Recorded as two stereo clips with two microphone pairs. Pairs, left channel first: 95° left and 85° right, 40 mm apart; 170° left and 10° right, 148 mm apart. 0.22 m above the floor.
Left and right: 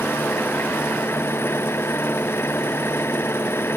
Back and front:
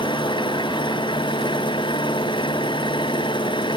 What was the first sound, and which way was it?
An engine running, 115° left.